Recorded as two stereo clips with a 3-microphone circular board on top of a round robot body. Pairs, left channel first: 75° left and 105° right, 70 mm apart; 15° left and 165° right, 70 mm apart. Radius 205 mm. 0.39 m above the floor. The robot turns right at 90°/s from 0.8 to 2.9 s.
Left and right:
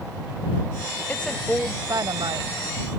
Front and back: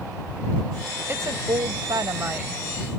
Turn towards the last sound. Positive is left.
turn(degrees=-55)